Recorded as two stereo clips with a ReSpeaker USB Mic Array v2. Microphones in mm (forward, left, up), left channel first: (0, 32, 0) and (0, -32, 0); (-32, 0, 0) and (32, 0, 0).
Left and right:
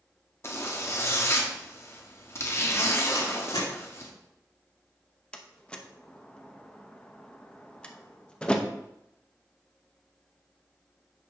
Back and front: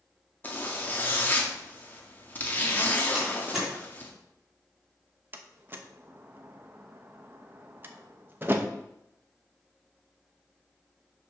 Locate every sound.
0.4 s a zipper: 125° left, 1.3 m
3.1 s a door slam: 85° left, 3 m
5.3 s a door slam: 25° left, 0.8 m